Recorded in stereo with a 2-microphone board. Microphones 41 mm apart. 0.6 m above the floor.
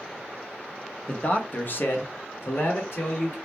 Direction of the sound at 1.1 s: 25° left (ahead or behind).